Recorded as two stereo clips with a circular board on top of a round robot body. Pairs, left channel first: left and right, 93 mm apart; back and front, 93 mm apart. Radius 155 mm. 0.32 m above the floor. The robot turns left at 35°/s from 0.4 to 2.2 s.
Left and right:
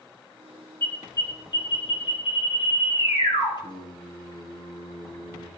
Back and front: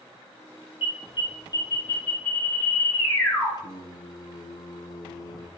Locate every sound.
0.8 s an alarm: 155° left, 6 m; by 3.5 s 105° left, 6 m
3.6 s singing: 130° left, 2 m